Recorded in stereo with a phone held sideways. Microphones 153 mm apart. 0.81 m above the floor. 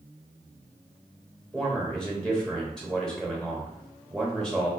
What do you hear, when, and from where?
1.5 s a man speaking: centre (ahead or behind), 0.8 m